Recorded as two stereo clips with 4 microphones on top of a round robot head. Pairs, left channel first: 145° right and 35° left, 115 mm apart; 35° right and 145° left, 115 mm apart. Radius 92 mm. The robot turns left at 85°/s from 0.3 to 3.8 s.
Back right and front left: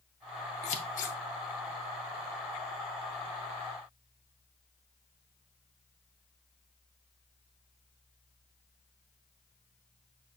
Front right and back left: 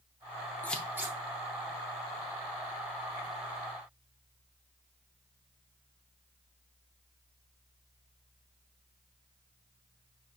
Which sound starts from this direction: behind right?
Scissors, at 0.6 s.